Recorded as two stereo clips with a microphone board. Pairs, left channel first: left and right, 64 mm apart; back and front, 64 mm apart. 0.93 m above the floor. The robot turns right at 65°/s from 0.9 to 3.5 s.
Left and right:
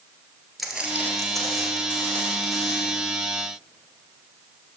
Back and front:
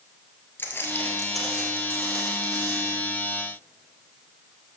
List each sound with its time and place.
0.6 s footsteps: straight behind, 1.0 m; by 2.9 s 25° left, 3.5 m